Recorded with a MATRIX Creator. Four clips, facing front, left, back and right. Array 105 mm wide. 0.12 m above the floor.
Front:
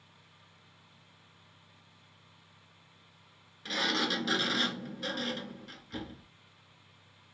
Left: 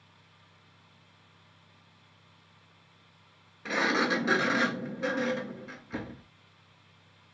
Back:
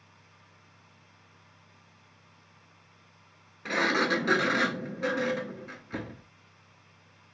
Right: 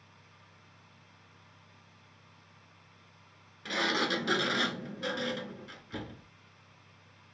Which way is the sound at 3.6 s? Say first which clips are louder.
Left 4 dB, back 6 dB; 150° left.